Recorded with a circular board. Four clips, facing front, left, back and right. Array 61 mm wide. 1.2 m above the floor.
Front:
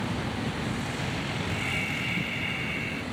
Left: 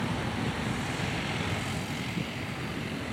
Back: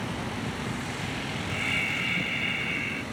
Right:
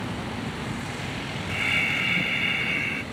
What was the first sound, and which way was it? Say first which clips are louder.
Breathing: right 8 dB, back 5 dB; 100° right.